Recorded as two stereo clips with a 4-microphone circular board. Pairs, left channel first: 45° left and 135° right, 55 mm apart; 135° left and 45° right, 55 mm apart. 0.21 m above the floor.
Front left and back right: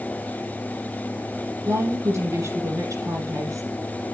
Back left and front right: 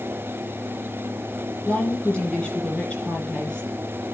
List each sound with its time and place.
1.6 s a woman speaking: 150° right, 6 m